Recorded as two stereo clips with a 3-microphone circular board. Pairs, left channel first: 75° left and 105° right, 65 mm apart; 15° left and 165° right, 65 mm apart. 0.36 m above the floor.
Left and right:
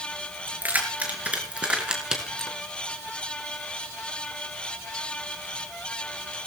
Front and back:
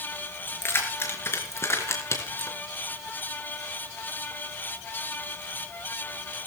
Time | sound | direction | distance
0.5 | keys jangling | 40° right | 5 m